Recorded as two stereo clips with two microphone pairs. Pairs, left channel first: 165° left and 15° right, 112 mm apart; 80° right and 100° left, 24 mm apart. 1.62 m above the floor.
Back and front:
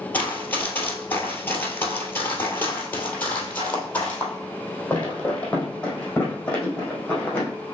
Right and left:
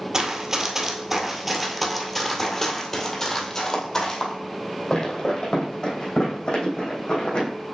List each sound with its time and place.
0.1 s running footsteps: 115° left, 1.7 m; by 7.5 s 115° right, 4 m